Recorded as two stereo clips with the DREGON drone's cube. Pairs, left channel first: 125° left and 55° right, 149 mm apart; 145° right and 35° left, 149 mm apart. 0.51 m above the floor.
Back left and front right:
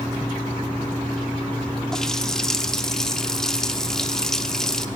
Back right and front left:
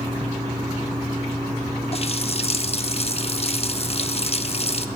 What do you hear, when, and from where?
1.9 s a running tap: 150° right, 0.7 m